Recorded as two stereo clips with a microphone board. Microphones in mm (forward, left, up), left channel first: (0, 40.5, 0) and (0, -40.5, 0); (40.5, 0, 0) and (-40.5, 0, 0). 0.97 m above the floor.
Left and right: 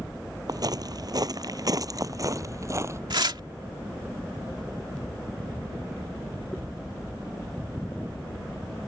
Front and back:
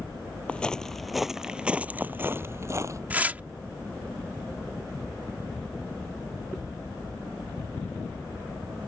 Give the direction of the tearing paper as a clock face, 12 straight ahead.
4 o'clock.